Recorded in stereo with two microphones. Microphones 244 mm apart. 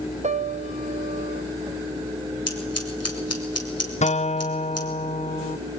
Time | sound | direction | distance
0.2 | a piano | 30° right (ahead or behind) | 0.7 m
2.5 | scissors | 80° left | 3.5 m
4.0 | a guitar | 30° left (ahead or behind) | 0.7 m